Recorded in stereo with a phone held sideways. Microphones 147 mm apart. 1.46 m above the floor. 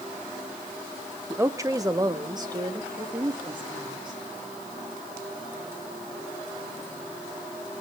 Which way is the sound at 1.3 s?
15° right (ahead or behind).